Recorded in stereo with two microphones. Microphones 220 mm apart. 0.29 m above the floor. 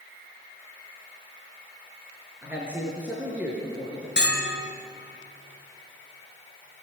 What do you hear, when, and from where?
2.4 s a man speaking: 5° right (ahead or behind), 5 m
4.2 s a bell: 50° left (ahead or behind), 3 m